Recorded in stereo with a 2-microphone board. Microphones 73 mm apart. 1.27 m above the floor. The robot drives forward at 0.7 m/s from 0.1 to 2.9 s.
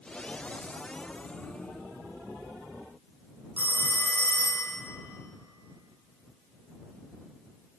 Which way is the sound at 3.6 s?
40° left (ahead or behind).